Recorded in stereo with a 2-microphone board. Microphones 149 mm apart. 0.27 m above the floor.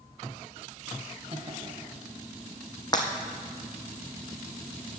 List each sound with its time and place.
1.3 s laughter: 40° right (ahead or behind), 1.6 m
2.9 s breaking glass: 30° left (ahead or behind), 2 m